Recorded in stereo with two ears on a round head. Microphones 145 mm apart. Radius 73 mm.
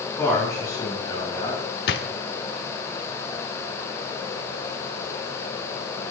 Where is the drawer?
70° left (ahead or behind), 1.1 m.